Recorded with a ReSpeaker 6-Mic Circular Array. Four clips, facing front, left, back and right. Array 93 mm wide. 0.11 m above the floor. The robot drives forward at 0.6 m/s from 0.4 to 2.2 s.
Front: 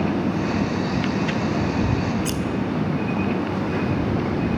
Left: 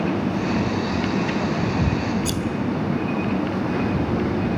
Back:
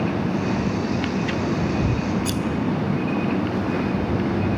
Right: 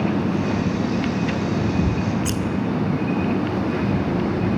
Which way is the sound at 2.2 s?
60° right.